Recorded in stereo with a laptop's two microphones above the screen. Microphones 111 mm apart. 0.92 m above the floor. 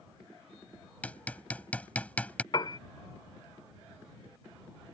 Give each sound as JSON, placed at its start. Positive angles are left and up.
{"t": 1.0, "sound": "hammering", "side_deg": 15}
{"t": 2.5, "sound": "a piano", "side_deg": 45}